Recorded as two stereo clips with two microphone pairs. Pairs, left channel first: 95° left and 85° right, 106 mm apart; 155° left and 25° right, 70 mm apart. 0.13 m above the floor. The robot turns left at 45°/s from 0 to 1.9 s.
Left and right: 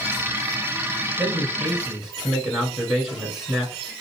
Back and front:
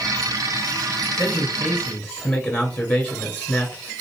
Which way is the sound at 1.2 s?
130° right.